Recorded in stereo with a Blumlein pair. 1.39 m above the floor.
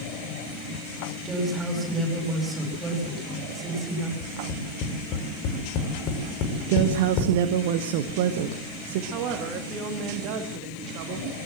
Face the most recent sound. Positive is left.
turn(degrees=-40)